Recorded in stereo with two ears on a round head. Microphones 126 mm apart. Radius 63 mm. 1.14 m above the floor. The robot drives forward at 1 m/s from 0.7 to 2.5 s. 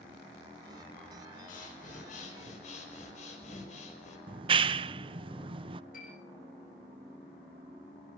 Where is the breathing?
65° left (ahead or behind), 4.5 m; by 4.2 s 55° left (ahead or behind), 5 m.